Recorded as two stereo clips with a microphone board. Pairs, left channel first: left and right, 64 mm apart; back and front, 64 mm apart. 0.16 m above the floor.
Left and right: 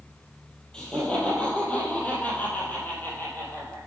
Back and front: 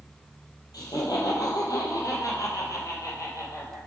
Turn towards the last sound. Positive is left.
turn(degrees=140)